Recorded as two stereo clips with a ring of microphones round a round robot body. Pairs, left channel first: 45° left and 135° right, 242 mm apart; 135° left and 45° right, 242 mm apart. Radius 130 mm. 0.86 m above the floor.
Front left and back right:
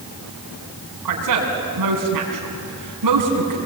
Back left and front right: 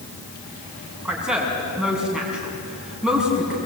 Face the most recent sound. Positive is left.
turn(degrees=-130)